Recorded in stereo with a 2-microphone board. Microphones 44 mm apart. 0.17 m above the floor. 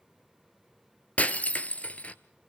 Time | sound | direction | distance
1.2 | breaking glass | 35° left (ahead or behind) | 1.1 m